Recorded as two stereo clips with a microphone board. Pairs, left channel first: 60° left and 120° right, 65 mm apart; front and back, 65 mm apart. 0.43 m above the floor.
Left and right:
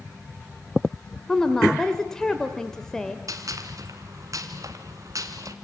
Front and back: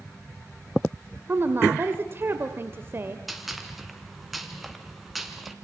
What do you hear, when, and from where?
1.3 s a woman speaking: 140° left, 1.7 m
3.3 s a gunshot: 90° right, 2.5 m